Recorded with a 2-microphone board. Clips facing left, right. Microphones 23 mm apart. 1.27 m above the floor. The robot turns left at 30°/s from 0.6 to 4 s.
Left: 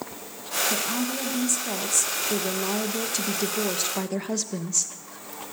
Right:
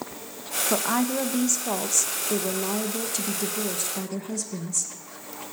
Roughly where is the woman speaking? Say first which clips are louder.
Right 3 dB; behind right.